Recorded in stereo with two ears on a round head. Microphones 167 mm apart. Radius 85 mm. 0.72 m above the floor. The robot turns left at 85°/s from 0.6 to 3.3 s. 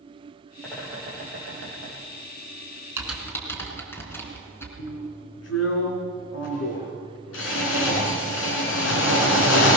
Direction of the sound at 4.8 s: 85° left.